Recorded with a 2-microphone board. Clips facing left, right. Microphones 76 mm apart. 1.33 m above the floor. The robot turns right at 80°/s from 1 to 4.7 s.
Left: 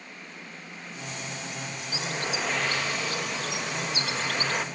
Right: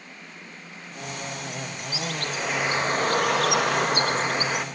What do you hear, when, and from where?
1.9 s a bird: 140° left, 1.4 m; by 4.7 s 5° right, 1.4 m